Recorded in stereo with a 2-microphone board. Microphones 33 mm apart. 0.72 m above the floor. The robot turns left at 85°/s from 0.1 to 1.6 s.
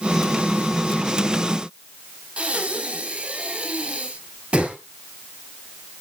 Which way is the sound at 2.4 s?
35° right (ahead or behind).